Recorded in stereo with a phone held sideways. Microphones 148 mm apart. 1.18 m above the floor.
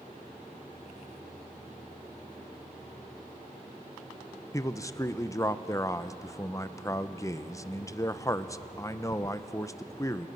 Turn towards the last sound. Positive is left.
turn(degrees=20)  # may be behind; listen again after turning